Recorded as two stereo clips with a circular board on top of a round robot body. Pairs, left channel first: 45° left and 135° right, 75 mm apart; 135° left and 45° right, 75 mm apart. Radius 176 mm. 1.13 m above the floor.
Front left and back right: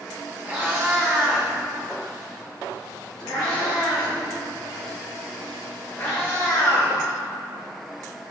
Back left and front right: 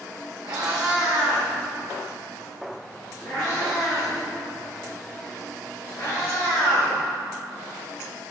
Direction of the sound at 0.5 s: 70° right.